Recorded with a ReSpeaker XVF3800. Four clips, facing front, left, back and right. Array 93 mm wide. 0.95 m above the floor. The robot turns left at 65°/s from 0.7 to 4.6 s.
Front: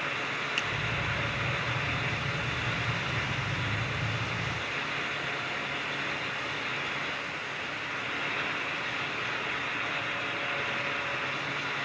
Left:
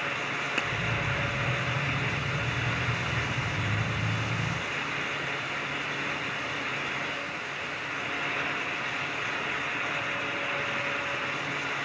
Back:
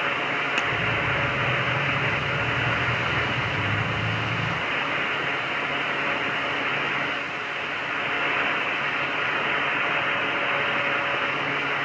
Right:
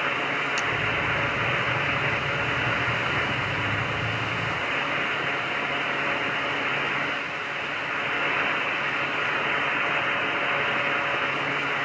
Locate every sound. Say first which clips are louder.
0.6 s a finger snap: right 4 dB, back 7 dB; 150° left, 1.0 m